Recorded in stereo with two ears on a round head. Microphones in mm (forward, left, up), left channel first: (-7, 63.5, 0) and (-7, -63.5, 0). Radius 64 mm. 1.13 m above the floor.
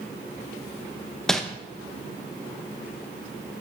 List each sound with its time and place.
1.3 s crumpling: 5° left (ahead or behind), 0.7 m